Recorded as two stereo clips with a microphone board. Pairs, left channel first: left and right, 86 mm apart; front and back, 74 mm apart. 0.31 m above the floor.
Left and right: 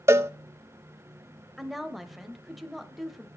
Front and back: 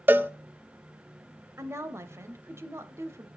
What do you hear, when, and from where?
0.1 s a cowbell: 130° right, 0.5 m
1.6 s a woman speaking: straight behind, 1.0 m